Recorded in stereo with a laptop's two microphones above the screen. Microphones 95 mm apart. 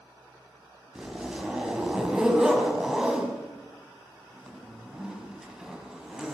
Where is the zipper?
10° right (ahead or behind), 5 m.